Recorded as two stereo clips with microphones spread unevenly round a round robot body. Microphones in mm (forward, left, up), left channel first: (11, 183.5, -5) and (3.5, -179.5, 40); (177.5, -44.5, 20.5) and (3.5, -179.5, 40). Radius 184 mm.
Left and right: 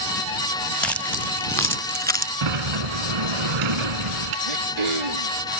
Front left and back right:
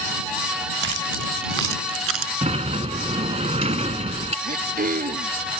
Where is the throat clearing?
95° right.